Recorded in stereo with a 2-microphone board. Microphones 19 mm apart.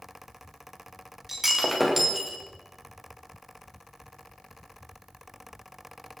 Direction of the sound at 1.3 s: 15° right (ahead or behind).